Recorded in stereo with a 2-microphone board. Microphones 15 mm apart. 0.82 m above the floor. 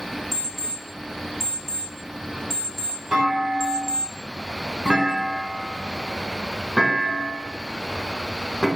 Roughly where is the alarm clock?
Centre.